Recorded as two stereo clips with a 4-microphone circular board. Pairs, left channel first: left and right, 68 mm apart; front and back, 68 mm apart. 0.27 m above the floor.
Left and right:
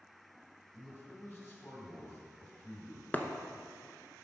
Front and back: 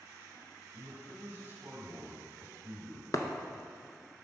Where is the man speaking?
130° left, 2.5 m.